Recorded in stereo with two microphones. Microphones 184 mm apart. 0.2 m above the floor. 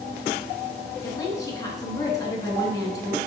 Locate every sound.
1.0 s a woman speaking: 20° left (ahead or behind), 2.5 m